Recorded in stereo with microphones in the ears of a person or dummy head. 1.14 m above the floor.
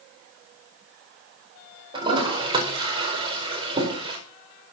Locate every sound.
1.9 s a toilet flushing: 30° right (ahead or behind), 4.5 m